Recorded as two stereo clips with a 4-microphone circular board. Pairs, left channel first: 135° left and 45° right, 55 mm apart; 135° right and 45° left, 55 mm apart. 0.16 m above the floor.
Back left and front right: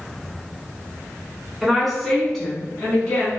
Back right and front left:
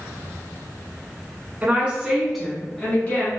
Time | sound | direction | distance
1.6 | a woman speaking | 40° left | 1.2 m